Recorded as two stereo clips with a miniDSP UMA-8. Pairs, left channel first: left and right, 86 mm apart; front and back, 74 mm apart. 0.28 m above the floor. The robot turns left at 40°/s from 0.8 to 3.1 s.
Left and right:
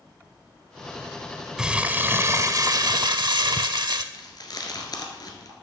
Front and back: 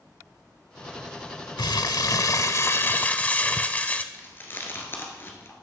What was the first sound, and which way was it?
Crumpling, 5° right.